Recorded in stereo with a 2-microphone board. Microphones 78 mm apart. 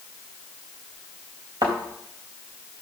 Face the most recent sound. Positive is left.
turn(degrees=-60)  # may be behind; listen again after turning